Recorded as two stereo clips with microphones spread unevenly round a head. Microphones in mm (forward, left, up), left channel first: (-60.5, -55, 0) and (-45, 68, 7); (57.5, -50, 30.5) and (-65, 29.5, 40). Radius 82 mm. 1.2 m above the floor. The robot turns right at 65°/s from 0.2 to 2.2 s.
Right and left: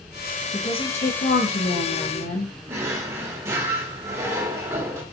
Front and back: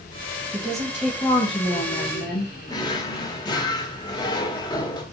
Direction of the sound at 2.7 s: 25° left.